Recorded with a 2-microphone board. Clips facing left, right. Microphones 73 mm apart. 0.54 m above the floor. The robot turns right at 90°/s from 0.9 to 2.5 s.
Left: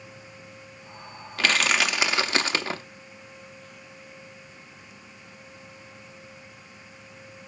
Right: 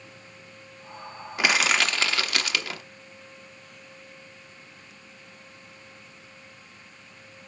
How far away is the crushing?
About 0.8 m.